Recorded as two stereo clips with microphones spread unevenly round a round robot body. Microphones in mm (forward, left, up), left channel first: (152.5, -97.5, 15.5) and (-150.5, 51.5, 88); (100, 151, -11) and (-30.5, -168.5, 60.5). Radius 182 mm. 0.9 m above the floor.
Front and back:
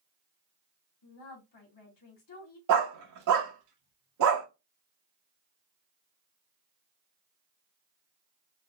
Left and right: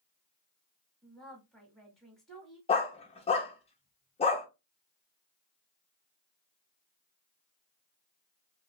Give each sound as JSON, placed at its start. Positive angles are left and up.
{"t": 1.0, "sound": "a woman speaking", "azimuth_deg": -15, "distance_m": 1.7}
{"t": 2.7, "sound": "a dog barking", "azimuth_deg": 150, "distance_m": 0.6}